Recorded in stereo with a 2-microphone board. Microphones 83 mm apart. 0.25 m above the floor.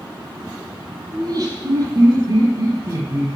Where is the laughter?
50° right (ahead or behind), 7 m; by 3.3 s 35° right (ahead or behind), 6.5 m.